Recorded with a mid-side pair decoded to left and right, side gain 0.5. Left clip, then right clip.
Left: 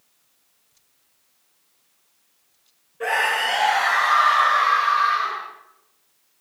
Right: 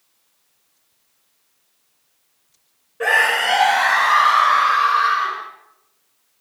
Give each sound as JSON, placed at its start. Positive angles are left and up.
{"t": 3.0, "sound": "a scream", "azimuth_deg": -70, "distance_m": 1.7}